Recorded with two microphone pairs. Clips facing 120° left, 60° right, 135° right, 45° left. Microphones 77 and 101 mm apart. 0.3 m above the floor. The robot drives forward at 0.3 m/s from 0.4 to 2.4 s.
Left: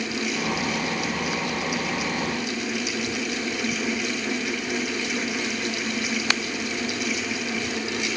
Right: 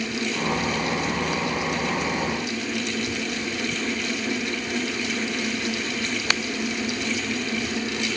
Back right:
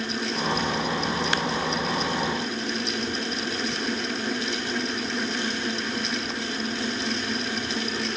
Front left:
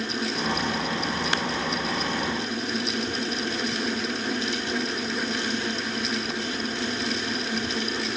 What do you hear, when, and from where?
Only background noise.